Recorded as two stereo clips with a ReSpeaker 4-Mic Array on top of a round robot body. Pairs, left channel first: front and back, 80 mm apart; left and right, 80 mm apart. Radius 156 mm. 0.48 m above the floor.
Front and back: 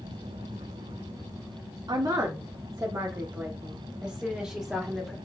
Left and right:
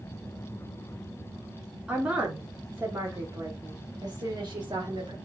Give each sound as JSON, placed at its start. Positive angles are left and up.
{"t": 1.9, "sound": "a woman speaking", "azimuth_deg": -165, "distance_m": 1.5}